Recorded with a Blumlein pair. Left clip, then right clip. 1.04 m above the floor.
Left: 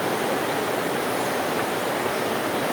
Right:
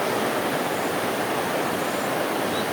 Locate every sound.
Only background noise.